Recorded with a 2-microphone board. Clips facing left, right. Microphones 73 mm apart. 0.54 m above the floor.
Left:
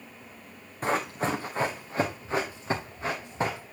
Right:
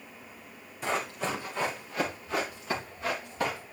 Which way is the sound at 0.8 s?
45° left (ahead or behind).